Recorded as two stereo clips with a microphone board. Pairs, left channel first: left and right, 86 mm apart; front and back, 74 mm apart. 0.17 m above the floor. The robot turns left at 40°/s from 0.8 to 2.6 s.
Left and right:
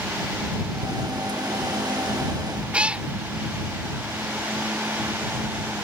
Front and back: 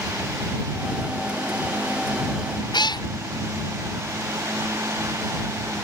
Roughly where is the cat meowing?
Ahead.